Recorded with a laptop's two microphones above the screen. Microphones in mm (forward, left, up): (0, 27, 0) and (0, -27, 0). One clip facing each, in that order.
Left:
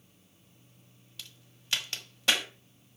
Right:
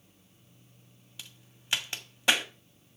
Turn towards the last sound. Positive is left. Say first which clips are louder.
# even
turn(degrees=-15)  # may be behind; listen again after turning